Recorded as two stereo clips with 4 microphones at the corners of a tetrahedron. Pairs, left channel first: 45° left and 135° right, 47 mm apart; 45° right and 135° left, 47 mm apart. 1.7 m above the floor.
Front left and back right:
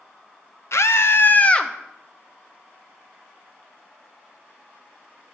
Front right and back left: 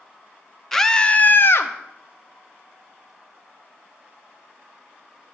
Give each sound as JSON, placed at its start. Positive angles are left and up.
{"t": 0.7, "sound": "a scream", "azimuth_deg": 40, "distance_m": 0.8}